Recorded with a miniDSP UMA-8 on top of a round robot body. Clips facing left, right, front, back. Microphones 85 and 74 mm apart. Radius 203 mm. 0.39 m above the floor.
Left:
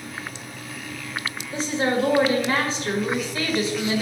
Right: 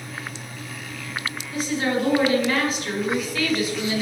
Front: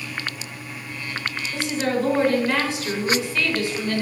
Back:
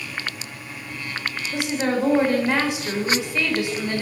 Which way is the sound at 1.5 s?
120° left.